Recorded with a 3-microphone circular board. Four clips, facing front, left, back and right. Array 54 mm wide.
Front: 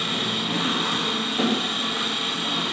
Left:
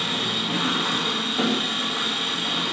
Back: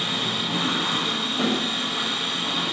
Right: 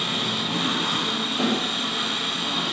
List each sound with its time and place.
0.0 s an engine running: 60° left, 1.2 m